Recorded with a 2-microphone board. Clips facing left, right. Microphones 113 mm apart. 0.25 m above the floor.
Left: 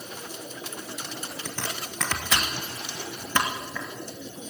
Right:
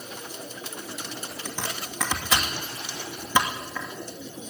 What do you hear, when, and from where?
1.4 s chopping: 10° right (ahead or behind), 2.5 m